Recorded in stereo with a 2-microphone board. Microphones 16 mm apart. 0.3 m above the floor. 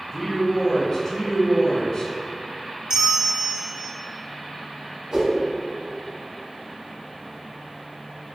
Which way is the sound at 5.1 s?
50° right (ahead or behind).